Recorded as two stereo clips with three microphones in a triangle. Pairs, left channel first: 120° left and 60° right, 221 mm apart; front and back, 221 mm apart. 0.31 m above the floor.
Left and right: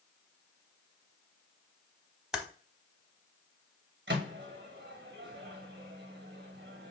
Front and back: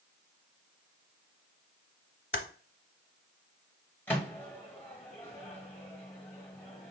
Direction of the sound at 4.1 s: 80° right.